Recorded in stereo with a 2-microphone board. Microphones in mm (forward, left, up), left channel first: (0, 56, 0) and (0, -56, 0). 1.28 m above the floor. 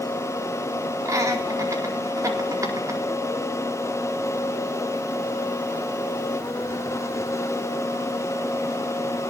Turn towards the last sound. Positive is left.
turn(degrees=-30)  # may be behind; listen again after turning